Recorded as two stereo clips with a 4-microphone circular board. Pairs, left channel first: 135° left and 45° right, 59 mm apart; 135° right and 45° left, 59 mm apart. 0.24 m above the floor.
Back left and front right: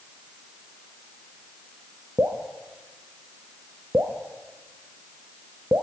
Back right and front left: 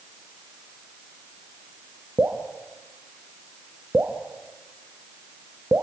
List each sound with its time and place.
2.2 s dripping: 5° right, 2 m